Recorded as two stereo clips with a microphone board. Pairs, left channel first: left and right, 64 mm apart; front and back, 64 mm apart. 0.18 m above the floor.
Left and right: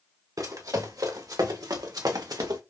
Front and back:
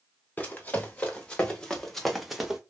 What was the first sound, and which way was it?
Running footsteps, 65° right.